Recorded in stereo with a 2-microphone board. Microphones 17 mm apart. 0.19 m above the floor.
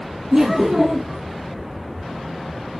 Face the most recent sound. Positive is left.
turn(degrees=-40)  # may be behind; listen again after turning